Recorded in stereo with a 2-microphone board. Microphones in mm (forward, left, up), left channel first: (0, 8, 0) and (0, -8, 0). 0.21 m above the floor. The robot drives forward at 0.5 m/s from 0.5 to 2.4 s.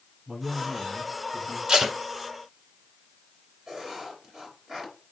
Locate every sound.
0.3 s a man speaking: 45° right (ahead or behind), 5 m; by 1.6 s 40° right (ahead or behind), 5 m
1.7 s tape being pulled: 60° right (ahead or behind), 1.7 m
3.7 s writing: 45° right (ahead or behind), 4.5 m